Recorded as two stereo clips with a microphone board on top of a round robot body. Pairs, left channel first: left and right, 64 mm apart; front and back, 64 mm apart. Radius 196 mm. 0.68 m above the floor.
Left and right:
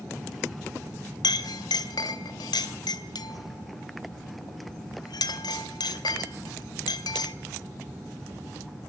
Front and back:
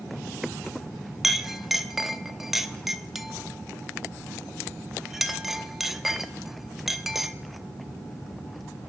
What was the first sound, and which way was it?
A clink, 95° left.